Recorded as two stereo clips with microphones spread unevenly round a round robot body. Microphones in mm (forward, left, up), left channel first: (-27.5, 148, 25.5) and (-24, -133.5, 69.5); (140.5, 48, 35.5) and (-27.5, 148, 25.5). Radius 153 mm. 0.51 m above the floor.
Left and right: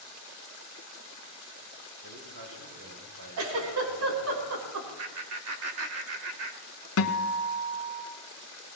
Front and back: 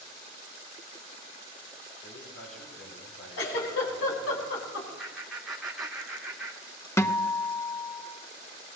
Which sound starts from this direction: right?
A man speaking, at 2.0 s.